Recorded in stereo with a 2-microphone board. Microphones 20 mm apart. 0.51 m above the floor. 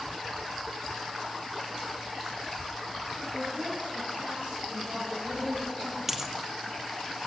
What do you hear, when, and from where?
3.3 s a woman speaking: 80° right, 8 m; by 6.0 s 85° right, 11.5 m
6.1 s a dropped coin: 15° right (ahead or behind), 2 m